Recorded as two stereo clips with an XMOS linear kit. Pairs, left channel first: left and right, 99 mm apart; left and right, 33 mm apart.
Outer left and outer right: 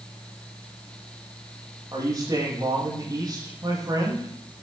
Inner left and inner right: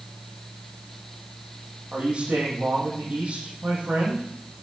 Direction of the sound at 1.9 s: 40° right (ahead or behind).